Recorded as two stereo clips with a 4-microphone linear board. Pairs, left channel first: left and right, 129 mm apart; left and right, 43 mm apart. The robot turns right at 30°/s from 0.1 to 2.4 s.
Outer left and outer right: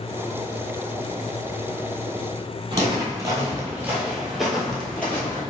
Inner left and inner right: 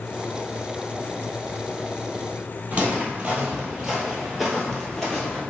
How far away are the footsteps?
About 2.0 m.